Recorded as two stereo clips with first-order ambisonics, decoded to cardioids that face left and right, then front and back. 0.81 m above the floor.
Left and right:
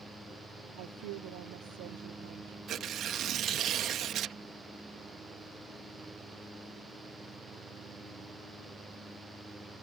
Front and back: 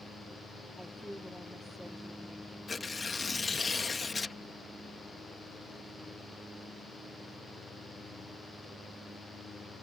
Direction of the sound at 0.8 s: 90° right.